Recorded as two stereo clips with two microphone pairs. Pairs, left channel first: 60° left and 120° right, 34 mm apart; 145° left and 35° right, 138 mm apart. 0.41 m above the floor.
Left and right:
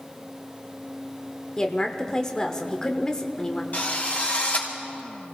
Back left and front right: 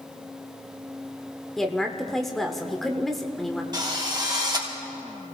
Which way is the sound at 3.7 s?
20° left.